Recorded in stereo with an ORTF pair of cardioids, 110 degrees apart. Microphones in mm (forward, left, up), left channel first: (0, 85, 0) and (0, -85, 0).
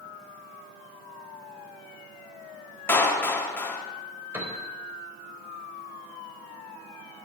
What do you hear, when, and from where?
2.9 s a clap: 10° left, 1.9 m
4.3 s a piano: 15° right, 3.5 m